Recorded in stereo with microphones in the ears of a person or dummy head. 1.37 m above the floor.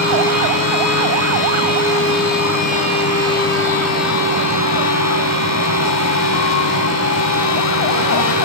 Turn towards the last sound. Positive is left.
turn(degrees=70)  # may be behind; listen again after turning